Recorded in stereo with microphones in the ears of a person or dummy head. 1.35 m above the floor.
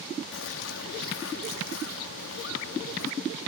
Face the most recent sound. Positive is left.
turn(degrees=80)